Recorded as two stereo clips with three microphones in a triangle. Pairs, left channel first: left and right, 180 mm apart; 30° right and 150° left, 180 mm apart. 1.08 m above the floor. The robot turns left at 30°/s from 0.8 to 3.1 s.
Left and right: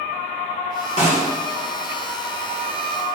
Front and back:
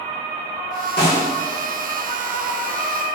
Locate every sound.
1.0 s a snare drum: 45° right, 1.9 m; by 1.2 s 50° right, 1.9 m